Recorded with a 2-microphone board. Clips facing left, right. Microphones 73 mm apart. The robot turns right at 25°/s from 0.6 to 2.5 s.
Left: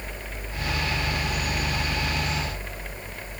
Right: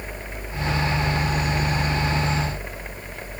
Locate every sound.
Only background noise.